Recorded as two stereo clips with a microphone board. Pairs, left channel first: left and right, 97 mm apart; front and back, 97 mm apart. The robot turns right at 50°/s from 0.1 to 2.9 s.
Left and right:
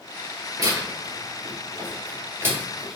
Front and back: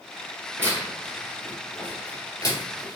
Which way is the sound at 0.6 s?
125° right.